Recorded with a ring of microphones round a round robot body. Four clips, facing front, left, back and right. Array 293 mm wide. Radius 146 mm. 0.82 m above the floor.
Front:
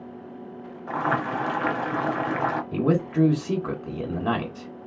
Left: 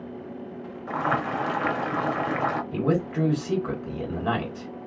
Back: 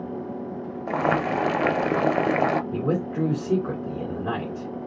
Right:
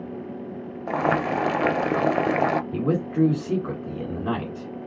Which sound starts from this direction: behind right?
Boiling, at 0.9 s.